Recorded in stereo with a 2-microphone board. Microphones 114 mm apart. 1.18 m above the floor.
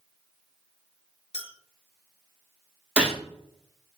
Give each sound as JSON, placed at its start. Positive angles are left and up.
{"t": 1.3, "sound": "a clink", "side_deg": 65, "distance_m": 0.7}
{"t": 3.0, "sound": "a gunshot", "side_deg": -10, "distance_m": 0.7}